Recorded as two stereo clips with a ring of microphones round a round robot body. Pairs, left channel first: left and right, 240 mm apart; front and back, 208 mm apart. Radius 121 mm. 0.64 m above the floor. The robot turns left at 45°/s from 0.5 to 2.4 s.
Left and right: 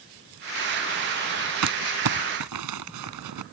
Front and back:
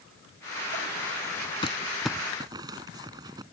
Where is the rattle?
I don't hear a rattle.